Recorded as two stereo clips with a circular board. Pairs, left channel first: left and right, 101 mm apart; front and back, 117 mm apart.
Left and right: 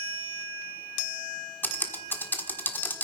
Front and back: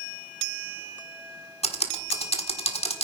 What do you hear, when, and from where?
1.6 s typing on a keyboard: 20° left, 1.4 m